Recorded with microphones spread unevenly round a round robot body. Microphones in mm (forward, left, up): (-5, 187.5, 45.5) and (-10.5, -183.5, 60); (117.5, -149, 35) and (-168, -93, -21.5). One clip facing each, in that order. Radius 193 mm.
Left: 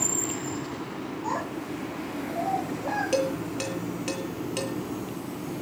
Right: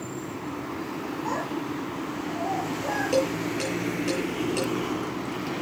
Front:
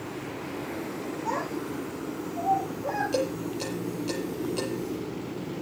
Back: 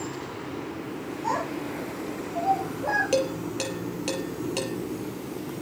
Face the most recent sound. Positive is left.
turn(degrees=170)